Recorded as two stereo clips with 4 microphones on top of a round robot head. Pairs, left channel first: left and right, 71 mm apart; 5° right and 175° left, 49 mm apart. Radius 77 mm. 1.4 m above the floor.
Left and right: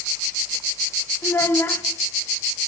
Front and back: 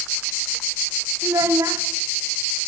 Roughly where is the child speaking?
Behind left.